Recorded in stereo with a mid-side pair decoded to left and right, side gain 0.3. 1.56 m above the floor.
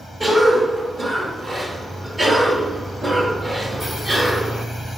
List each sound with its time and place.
0.2 s a cough: 45° right, 3.5 m